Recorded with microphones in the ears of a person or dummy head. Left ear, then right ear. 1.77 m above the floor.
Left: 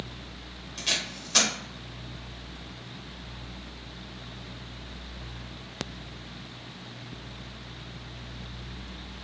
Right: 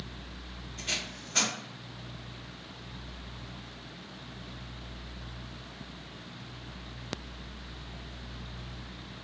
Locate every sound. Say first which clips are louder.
0.8 s tape being pulled: left 5 dB; 60° left (ahead or behind), 0.9 m